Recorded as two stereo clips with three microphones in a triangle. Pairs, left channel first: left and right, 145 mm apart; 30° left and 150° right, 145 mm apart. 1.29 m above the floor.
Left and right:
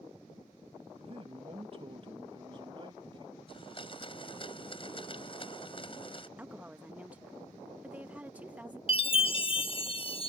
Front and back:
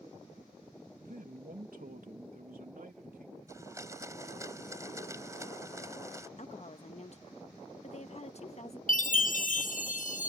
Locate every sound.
1.0 s a man speaking: 140° right; by 3.4 s 145° right
3.5 s a blender: 140° left
6.4 s a woman speaking: 10° right
8.9 s a chime: 45° left